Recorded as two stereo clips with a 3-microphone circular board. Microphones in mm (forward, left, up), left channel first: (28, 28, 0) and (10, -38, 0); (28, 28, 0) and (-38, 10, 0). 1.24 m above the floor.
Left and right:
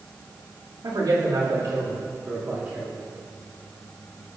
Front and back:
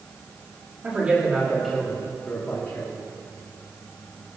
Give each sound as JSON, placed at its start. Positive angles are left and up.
{"t": 0.8, "sound": "a man speaking", "azimuth_deg": -100, "distance_m": 3.0}